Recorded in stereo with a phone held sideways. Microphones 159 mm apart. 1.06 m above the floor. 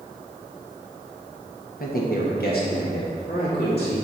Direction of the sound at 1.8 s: 65° left (ahead or behind).